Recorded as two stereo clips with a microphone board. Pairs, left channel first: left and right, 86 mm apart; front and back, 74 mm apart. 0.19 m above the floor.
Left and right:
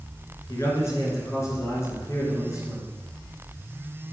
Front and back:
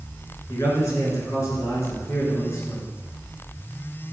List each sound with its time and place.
0.5 s a man speaking: 40° left, 3 m